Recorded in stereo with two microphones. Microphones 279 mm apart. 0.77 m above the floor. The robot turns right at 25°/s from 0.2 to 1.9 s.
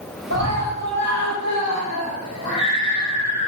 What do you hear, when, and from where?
0.3 s a scream: 95° right, 7 m; by 3.5 s 55° right, 7 m